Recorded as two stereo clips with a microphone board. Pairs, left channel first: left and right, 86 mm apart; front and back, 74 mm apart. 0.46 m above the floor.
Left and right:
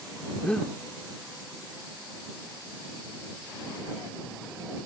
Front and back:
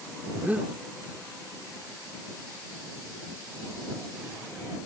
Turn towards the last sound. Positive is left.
turn(degrees=155)